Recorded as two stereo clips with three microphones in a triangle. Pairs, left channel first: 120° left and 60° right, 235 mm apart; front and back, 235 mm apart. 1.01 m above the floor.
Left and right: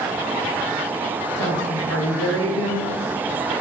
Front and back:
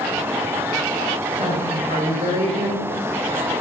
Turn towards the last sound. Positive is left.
turn(degrees=125)